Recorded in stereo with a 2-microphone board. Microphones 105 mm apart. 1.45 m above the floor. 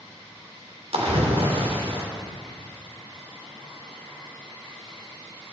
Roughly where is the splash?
Right.